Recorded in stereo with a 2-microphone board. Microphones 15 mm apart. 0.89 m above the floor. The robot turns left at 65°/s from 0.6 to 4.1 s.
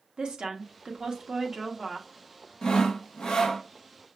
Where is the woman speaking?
85° right, 1.2 m; by 2.1 s straight behind, 1.2 m.